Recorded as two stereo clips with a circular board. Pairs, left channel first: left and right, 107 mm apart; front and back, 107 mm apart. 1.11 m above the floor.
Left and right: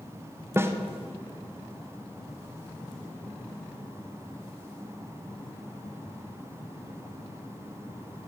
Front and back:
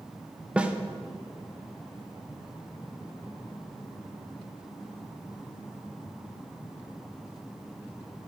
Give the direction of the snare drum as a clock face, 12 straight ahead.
4 o'clock.